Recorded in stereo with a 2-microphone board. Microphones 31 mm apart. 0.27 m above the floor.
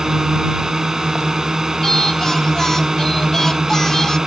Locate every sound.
0.0 s a drone: 15° right (ahead or behind)
1.8 s singing: 15° left (ahead or behind)